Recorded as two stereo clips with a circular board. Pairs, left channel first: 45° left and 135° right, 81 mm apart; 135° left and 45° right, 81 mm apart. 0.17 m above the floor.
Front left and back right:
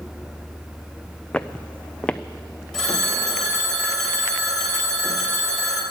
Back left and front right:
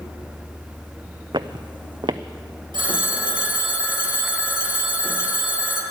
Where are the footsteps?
30° right, 0.6 m.